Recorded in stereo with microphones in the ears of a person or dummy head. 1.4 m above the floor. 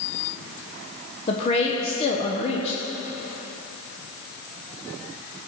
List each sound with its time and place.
1.3 s a woman speaking: 30° left (ahead or behind), 0.9 m